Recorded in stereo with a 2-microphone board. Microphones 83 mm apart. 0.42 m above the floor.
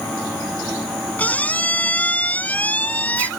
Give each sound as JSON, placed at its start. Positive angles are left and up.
{"t": 1.2, "sound": "a squeak", "side_deg": 20}